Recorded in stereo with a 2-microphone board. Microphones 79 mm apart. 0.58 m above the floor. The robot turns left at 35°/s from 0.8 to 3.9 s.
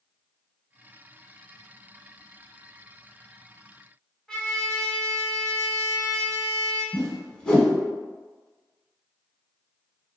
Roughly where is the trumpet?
Centre.